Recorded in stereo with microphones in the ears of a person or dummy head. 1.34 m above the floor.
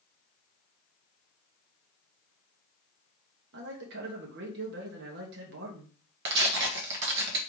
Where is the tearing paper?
60° right (ahead or behind), 1.2 m.